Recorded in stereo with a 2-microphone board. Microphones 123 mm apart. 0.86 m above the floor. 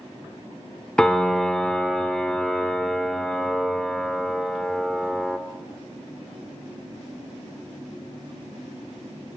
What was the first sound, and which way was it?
A piano, 5° left (ahead or behind).